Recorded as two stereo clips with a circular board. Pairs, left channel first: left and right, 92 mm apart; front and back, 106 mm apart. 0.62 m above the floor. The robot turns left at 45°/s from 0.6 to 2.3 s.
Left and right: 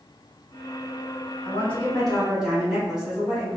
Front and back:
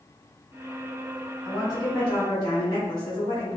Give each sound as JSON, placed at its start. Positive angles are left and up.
{"t": 1.4, "sound": "a woman speaking", "azimuth_deg": 30, "distance_m": 1.3}